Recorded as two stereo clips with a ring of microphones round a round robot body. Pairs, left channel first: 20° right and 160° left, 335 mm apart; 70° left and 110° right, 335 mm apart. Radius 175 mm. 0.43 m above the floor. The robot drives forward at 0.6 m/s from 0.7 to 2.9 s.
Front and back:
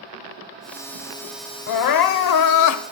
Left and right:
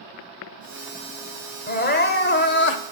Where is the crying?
5° left, 1.1 m; by 2.8 s 15° left, 0.5 m.